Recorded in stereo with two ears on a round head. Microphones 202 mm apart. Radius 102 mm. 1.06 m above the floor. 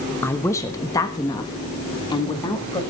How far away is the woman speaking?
About 1.2 m.